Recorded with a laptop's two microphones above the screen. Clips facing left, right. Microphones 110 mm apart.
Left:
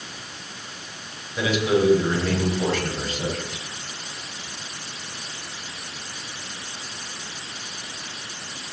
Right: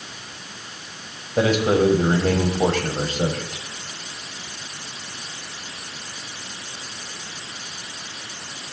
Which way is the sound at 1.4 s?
50° right (ahead or behind).